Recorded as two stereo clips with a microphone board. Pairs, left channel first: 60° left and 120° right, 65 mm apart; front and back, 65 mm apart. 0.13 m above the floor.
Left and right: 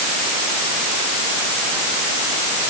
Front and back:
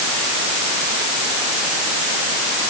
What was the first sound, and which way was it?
Only background noise.